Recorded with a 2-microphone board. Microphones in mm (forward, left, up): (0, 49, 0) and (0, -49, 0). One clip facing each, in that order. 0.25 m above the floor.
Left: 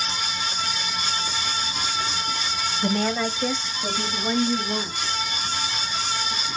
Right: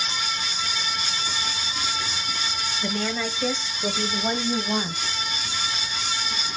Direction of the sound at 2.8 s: 30° left (ahead or behind).